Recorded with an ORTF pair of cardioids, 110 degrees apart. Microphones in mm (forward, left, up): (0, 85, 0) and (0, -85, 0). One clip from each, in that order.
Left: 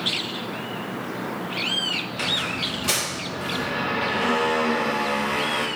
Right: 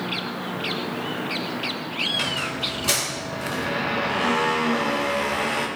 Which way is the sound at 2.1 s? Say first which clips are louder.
Even; 10° right.